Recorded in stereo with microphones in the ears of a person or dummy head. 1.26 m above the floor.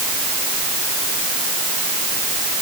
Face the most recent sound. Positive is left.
No sound to turn to.